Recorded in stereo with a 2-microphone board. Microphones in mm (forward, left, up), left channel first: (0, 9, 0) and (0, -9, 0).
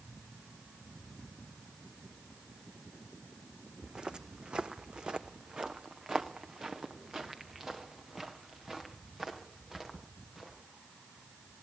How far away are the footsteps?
About 1.1 m.